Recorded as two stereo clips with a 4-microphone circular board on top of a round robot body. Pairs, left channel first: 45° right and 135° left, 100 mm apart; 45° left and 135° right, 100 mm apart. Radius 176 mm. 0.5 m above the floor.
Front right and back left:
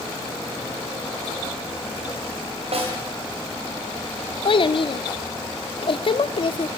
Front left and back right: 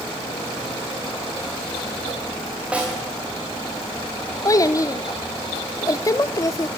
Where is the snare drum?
150° left, 4 m.